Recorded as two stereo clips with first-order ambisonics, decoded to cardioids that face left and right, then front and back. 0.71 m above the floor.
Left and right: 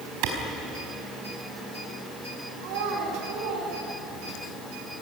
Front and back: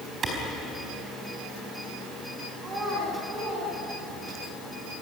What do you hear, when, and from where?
0.2 s a clap: 115° right, 4.5 m
2.6 s a child speaking: 110° right, 4 m